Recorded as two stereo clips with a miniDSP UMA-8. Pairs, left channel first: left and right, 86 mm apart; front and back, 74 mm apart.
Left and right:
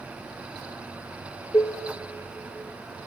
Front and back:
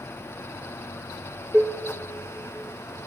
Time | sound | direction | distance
1.5 | dishes clattering | 120° left | 0.7 m